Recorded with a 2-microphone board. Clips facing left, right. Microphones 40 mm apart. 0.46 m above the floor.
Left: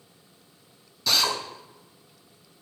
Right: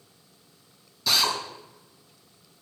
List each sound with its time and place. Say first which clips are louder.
1.1 s a drill: even; 5° right (ahead or behind), 1.7 m